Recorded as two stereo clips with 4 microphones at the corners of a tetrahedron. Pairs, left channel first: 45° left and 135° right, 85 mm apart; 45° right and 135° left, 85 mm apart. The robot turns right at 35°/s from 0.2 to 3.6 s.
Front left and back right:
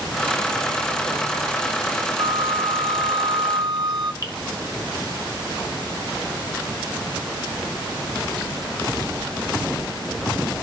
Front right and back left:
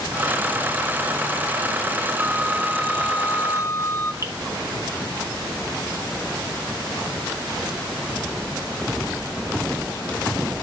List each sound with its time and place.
2.2 s a flute: 150° right, 0.7 m; by 4.1 s 100° right, 0.7 m
4.2 s dripping: 85° left, 1.1 m